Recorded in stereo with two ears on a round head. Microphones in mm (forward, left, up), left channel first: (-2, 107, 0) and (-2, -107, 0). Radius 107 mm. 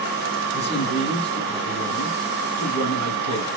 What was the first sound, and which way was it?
A man speaking, 25° left (ahead or behind).